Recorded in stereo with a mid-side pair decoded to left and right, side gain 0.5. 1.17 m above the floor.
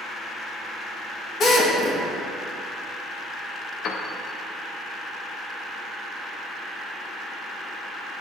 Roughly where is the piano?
Ahead left.